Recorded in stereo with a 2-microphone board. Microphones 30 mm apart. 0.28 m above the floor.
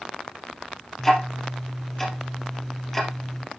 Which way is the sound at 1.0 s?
5° left (ahead or behind).